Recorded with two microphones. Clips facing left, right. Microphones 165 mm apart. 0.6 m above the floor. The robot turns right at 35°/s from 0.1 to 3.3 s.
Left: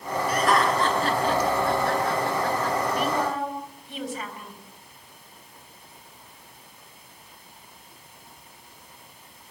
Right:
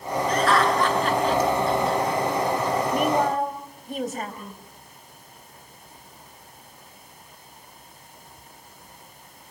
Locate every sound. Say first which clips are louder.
0.3 s laughter: right 1 dB; 10° left (ahead or behind), 9 m; by 2.8 s 80° left, 9 m
2.9 s a woman speaking: right 4 dB; 55° right (ahead or behind), 4 m; by 4.6 s 45° right (ahead or behind), 4 m